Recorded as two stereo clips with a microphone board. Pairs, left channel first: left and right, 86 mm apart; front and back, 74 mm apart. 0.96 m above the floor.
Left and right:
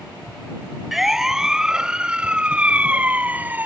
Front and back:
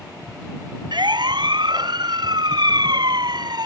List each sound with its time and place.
0.9 s a siren: 175° right; by 3.6 s 160° right